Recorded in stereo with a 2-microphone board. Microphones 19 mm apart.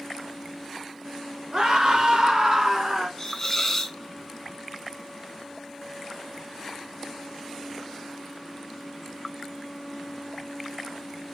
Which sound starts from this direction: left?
A hiss, at 3.2 s.